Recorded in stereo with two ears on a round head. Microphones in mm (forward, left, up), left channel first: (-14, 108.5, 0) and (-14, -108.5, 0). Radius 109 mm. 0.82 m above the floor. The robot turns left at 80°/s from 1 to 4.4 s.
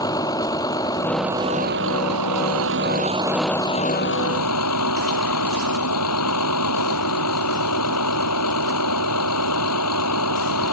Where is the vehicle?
15° left; by 10.7 s 105° left.